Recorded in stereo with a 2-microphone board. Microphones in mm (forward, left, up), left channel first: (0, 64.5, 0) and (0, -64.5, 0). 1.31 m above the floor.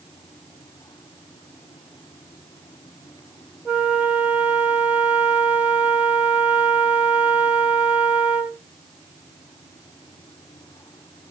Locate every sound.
3.6 s a flute: 10° right (ahead or behind), 1.1 m